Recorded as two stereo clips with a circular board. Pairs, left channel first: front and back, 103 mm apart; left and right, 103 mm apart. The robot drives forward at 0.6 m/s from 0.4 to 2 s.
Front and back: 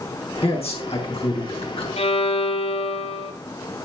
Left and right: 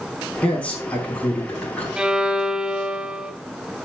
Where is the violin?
10° right, 0.9 m.